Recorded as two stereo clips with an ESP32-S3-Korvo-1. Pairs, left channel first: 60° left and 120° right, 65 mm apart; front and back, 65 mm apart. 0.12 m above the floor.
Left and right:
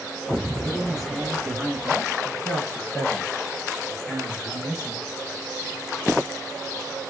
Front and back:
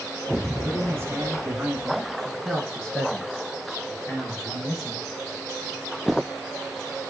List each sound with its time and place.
0.7 s a man speaking: 160° left, 1.6 m; by 5.0 s 10° left, 2.0 m